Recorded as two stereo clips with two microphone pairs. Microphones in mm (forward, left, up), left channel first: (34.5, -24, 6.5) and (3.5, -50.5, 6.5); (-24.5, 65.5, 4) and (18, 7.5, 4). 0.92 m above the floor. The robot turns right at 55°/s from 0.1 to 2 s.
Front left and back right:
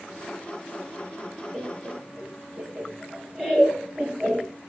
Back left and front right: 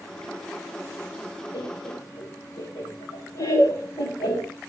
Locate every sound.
1.5 s laughter: 140° left, 3.5 m; by 4.5 s 165° left, 3.5 m